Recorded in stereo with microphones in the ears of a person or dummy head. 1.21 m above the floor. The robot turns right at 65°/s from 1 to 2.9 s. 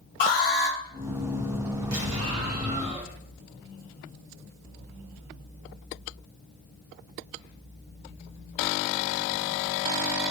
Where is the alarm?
45° left (ahead or behind), 0.9 m.